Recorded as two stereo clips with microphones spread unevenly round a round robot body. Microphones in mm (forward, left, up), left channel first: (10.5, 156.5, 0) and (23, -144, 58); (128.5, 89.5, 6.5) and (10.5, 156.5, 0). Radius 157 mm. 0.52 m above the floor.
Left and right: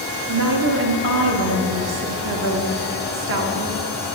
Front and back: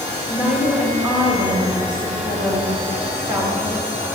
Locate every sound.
0.3 s a woman speaking: 135° right, 1.5 m